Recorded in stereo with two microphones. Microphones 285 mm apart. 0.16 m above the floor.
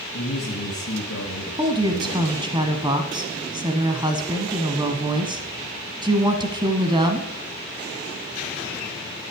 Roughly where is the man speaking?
Left.